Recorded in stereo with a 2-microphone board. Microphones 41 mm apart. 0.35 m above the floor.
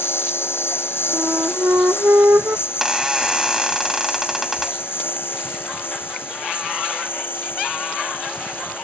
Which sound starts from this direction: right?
A flute, at 1.1 s.